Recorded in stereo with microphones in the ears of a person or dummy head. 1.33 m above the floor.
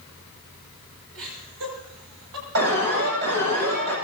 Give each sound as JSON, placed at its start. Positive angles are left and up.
{"t": 1.1, "sound": "laughter", "side_deg": -80, "distance_m": 8.5}
{"t": 2.5, "sound": "an alarm", "side_deg": -65, "distance_m": 9.0}